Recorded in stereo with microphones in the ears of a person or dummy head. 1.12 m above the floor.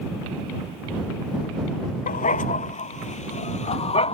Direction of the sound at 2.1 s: 40° left (ahead or behind).